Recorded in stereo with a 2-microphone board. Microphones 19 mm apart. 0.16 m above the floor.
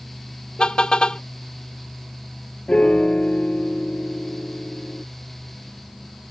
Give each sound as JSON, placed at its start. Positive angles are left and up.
{"t": 0.6, "sound": "a car horn", "side_deg": 50}
{"t": 2.7, "sound": "a piano", "side_deg": 65}